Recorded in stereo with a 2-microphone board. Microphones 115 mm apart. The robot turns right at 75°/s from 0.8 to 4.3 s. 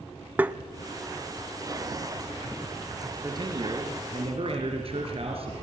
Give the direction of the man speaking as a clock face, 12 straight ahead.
5 o'clock.